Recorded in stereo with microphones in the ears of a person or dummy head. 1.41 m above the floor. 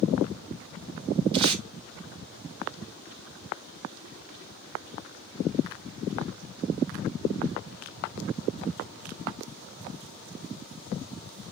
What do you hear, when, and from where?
1.3 s tape being pulled: 25° right (ahead or behind), 0.9 m